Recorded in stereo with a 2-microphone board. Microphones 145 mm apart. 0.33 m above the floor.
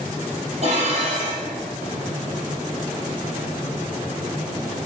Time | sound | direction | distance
0.6 | dishes clattering | 50° right (ahead or behind) | 6.5 m